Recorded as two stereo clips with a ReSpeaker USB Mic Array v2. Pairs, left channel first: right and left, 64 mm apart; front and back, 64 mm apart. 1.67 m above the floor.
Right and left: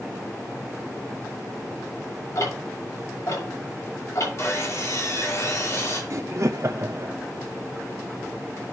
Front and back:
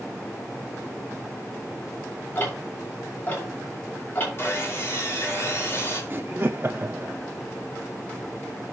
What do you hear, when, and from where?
2.4 s ticking: 60° right, 5 m
4.4 s sawing: 50° right, 4.5 m
6.1 s laughter: 135° left, 0.5 m